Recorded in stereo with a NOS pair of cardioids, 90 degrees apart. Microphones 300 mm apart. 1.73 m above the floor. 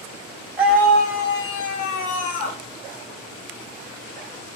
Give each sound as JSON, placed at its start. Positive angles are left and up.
{"t": 0.6, "sound": "a scream", "azimuth_deg": -10, "distance_m": 1.1}